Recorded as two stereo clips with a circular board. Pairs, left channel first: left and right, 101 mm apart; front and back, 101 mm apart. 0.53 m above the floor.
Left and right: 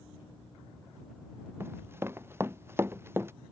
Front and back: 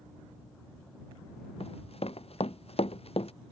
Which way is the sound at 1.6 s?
20° right.